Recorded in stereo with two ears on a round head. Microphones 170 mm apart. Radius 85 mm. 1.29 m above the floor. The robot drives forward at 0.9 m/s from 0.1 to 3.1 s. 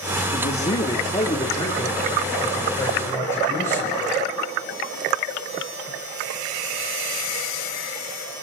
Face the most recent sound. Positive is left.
turn(degrees=15)  # may be behind; listen again after turning